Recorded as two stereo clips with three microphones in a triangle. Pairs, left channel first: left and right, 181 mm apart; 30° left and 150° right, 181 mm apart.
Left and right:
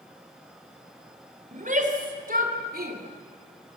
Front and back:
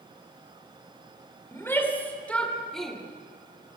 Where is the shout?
45° right, 4 m; by 3.0 s 60° right, 3 m.